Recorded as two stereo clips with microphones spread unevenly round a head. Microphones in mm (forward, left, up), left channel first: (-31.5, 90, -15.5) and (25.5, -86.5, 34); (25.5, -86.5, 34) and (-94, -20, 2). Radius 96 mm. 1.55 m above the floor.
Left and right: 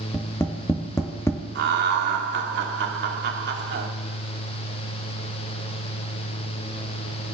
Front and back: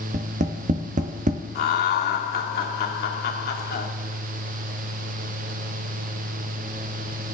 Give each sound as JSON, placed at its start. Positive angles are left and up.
{"t": 0.1, "sound": "tapping", "azimuth_deg": -175, "distance_m": 0.7}
{"t": 1.6, "sound": "laughter", "azimuth_deg": -35, "distance_m": 1.1}